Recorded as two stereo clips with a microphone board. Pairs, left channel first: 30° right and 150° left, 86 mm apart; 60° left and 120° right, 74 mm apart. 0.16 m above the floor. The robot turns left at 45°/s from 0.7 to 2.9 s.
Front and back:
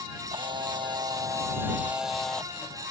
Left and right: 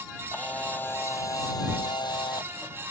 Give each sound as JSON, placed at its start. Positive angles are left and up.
{"t": 0.3, "sound": "a camera shutter", "azimuth_deg": 125}